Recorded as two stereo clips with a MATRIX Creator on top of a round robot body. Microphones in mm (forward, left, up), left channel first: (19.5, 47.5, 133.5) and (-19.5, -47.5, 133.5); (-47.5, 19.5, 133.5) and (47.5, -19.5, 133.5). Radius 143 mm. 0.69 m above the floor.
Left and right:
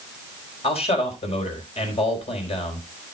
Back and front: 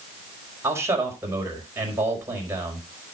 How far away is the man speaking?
About 5 m.